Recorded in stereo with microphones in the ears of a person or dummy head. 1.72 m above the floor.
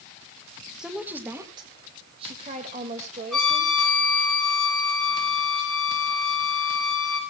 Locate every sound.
0.8 s a woman speaking: 5° right (ahead or behind), 2 m; by 3.7 s 55° right (ahead or behind), 3.5 m
3.3 s a trumpet: 5° left (ahead or behind), 5.5 m